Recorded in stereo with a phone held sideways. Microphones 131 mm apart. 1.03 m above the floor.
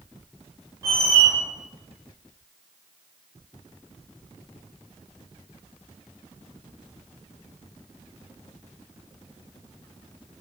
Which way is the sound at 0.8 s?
25° right (ahead or behind).